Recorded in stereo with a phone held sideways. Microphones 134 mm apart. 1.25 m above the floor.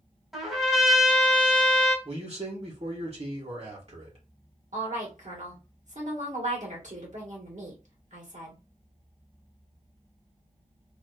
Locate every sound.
0.3 s a trumpet: 5° right (ahead or behind), 1.3 m
2.0 s a man speaking: 50° right (ahead or behind), 1.3 m
4.7 s a woman speaking: 65° right (ahead or behind), 1.2 m